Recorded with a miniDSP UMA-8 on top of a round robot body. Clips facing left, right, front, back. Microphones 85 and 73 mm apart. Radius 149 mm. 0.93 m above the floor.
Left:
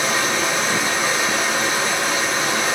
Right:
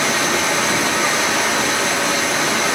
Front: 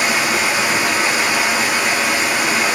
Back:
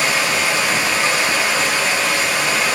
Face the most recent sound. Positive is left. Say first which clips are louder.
# right 2 dB, front 1 dB
turn(degrees=-75)